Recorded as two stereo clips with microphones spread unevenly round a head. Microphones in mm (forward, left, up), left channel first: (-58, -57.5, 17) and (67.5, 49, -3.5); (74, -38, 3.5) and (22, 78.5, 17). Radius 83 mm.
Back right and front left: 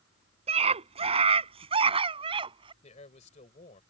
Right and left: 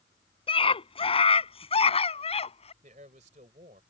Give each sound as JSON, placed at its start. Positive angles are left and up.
{"t": 0.5, "sound": "a scream", "azimuth_deg": -15}
{"t": 2.8, "sound": "a man speaking", "azimuth_deg": 170}